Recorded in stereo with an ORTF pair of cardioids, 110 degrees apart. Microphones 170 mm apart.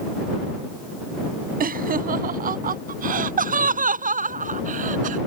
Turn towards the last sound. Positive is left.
turn(degrees=-50)